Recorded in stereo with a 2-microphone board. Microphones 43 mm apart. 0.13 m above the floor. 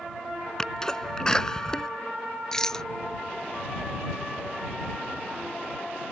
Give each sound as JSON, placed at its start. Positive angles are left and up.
{"t": 0.6, "sound": "a sneeze", "side_deg": 15}
{"t": 2.5, "sound": "a rattle", "side_deg": 15}